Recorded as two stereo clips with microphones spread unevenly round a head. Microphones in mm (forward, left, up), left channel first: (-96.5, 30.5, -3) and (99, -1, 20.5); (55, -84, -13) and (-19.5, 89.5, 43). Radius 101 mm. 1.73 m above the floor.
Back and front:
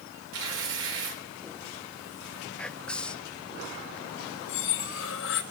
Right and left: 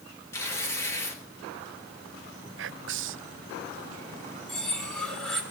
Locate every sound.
0.3 s tearing paper: 15° left, 4.5 m
2.6 s whispering: 85° left, 0.7 m
4.5 s cutlery clinking: 160° right, 2 m